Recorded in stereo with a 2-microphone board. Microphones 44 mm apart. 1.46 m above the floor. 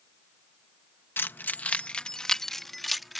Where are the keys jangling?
55° left (ahead or behind); by 3.2 s 5° right (ahead or behind).